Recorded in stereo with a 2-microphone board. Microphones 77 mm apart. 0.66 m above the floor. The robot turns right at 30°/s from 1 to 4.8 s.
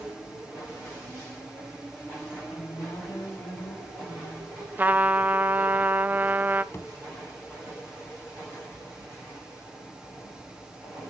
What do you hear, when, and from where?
2.5 s a woman speaking: 75° left, 5 m; by 4.5 s 135° left, 5 m
4.8 s a trumpet: 25° right (ahead or behind), 0.5 m
6.7 s a thud: 40° left (ahead or behind), 1.1 m